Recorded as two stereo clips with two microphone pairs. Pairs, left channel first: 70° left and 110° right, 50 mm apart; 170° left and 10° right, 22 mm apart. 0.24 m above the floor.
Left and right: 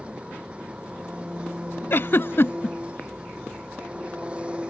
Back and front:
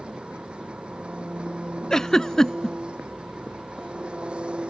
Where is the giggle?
110° left.